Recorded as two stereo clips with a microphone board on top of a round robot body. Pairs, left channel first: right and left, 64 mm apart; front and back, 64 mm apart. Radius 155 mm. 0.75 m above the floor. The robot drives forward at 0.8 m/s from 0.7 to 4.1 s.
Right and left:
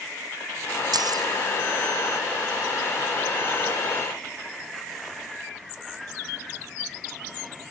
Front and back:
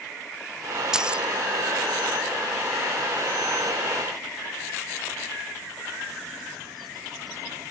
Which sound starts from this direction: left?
Keys jangling, at 0.9 s.